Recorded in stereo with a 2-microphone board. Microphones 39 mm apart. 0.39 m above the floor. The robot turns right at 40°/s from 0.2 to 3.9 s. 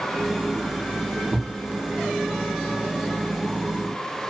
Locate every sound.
1.3 s a thud: 50° right (ahead or behind), 1.0 m; by 1.5 s 60° right (ahead or behind), 1.0 m